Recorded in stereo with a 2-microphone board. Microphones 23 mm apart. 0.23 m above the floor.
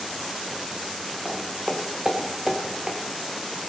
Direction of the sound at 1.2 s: 15° right (ahead or behind).